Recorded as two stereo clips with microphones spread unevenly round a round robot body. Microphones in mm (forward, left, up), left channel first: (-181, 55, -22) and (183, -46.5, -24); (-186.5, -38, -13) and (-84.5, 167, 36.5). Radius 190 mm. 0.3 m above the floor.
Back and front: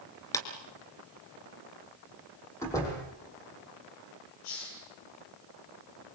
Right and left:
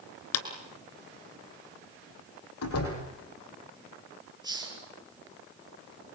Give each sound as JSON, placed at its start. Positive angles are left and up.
{"t": 0.3, "sound": "a clap", "azimuth_deg": -115, "distance_m": 3.0}
{"t": 2.6, "sound": "a door slam", "azimuth_deg": -115, "distance_m": 8.0}
{"t": 4.4, "sound": "a hiss", "azimuth_deg": 135, "distance_m": 7.0}